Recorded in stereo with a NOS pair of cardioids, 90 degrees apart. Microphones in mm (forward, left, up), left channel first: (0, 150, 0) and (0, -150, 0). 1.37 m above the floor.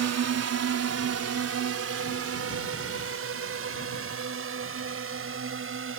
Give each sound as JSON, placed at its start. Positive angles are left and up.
{"t": 0.0, "sound": "a drone", "azimuth_deg": -55}